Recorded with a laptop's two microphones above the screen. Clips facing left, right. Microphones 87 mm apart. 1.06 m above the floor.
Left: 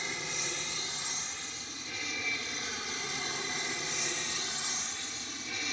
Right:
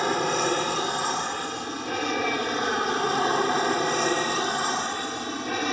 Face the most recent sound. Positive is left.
turn(degrees=-60)  # may be behind; listen again after turning